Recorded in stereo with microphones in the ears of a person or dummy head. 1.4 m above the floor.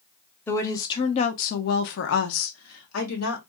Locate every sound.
0.5 s a woman speaking: 10° left (ahead or behind), 0.9 m; by 3.4 s 80° left, 1.4 m